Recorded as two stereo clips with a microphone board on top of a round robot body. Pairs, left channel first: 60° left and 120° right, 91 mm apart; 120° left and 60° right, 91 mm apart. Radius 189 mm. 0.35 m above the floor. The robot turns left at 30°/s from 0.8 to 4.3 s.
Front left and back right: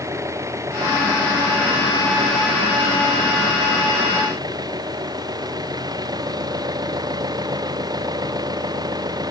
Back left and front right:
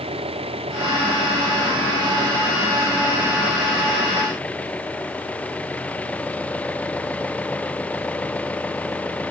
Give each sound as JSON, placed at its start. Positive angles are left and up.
{"t": 0.0, "sound": "an engine running", "azimuth_deg": -60}